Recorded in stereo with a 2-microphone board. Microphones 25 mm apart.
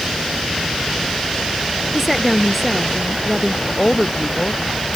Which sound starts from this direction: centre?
A woman speaking, at 1.9 s.